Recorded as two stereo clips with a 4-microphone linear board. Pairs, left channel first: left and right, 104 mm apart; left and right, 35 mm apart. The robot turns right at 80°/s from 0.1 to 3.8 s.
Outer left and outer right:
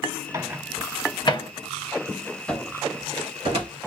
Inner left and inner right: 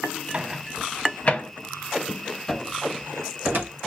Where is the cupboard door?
5° left (ahead or behind), 2.5 m; by 3.7 s 85° right, 2.5 m.